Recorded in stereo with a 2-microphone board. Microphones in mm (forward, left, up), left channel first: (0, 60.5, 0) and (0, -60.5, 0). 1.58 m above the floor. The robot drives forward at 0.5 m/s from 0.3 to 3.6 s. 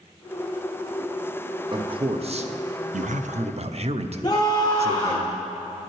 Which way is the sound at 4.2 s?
30° left (ahead or behind).